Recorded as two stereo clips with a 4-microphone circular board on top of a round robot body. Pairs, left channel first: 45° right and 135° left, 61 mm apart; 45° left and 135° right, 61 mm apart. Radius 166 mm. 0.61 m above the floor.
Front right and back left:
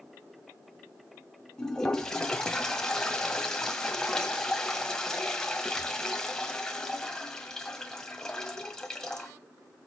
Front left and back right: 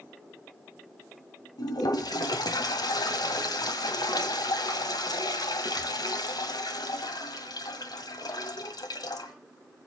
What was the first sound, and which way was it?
A toilet flushing, 35° left.